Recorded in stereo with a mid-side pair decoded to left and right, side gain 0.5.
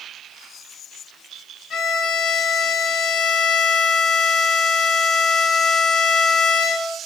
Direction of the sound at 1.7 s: 55° left.